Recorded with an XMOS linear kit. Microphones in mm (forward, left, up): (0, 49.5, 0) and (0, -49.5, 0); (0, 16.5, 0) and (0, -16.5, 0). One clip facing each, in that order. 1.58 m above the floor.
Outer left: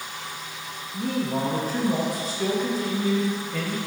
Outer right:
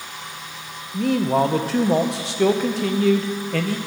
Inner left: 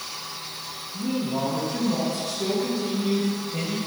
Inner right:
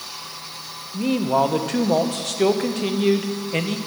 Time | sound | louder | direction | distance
0.9 | a man speaking | outer right 7 dB, inner right 7 dB | 80° right | 0.8 m